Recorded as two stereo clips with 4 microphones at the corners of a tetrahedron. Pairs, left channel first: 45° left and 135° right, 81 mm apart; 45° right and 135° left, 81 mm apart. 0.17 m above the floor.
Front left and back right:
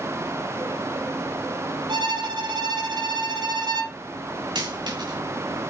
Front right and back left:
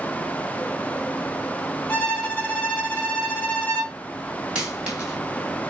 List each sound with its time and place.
1.9 s a violin: 120° right, 3 m
4.5 s a dropped coin: 145° right, 5.5 m